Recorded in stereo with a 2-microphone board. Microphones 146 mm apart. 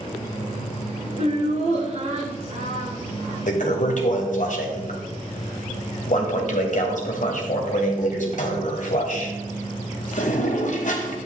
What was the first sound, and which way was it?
Laughter, 50° right (ahead or behind).